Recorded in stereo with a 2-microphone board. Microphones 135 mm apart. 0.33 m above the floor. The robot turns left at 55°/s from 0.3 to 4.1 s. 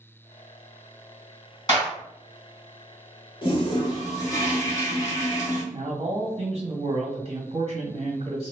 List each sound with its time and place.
1.7 s a clap: 30° left (ahead or behind), 1.7 m; by 1.9 s 20° left (ahead or behind), 1.7 m
3.4 s a toilet flushing: 85° left, 0.9 m; by 5.6 s 50° left, 0.9 m
5.7 s a man speaking: 55° right (ahead or behind), 1.6 m